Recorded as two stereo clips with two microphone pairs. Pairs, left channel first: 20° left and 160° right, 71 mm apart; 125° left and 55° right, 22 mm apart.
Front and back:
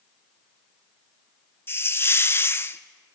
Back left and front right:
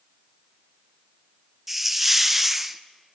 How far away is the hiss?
About 0.6 m.